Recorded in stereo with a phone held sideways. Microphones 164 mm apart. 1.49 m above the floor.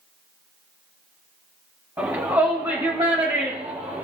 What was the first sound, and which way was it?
A shout, 20° right (ahead or behind).